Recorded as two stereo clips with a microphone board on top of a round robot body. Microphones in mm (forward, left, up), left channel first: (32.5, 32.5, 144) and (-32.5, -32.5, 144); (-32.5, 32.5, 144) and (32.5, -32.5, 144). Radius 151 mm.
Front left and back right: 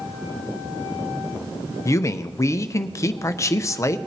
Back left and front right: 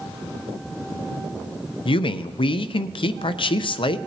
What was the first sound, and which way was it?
A man speaking, 105° left.